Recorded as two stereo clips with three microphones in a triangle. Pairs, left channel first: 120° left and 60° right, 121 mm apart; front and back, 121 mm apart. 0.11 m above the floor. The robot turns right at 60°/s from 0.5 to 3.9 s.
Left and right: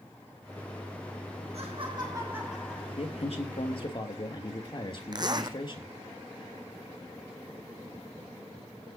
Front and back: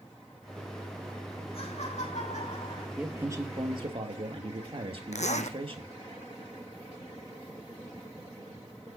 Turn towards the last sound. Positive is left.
turn(degrees=-10)